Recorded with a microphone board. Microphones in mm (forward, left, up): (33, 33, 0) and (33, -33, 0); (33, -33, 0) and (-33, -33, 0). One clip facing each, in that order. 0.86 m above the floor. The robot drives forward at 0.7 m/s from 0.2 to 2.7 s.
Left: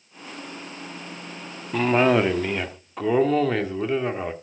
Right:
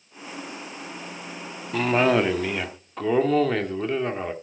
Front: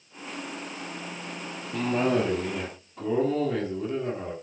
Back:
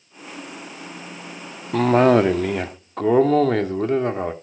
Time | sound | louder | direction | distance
1.7 | a cough | left 1 dB, back 10 dB | 175° left | 1.1 m